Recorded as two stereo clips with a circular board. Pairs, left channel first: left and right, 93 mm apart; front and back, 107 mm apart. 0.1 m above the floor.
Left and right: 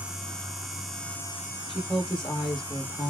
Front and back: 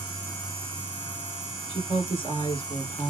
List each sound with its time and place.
1.7 s a woman speaking: 10° left, 2.5 m